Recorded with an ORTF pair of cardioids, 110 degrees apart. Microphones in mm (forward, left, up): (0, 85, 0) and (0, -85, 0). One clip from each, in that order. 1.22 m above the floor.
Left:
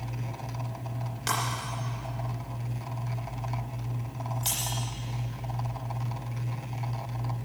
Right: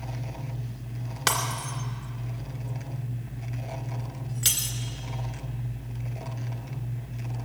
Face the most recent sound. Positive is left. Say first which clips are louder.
# right 3 dB
turn(degrees=-65)